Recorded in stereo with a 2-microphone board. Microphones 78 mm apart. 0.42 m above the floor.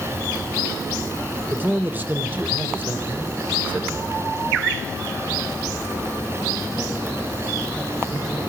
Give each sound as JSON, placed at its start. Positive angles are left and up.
{"t": 1.5, "sound": "a man speaking", "side_deg": -25, "distance_m": 1.3}